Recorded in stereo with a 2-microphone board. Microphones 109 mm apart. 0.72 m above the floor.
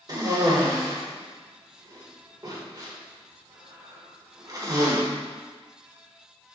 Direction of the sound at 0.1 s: 40° right (ahead or behind).